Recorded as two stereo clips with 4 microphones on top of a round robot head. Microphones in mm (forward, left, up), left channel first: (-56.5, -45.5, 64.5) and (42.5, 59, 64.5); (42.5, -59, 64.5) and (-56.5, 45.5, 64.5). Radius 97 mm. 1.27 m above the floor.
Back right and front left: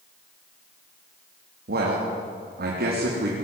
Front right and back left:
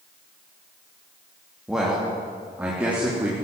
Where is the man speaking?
45° left, 3 m; by 3.4 s 55° left, 4 m.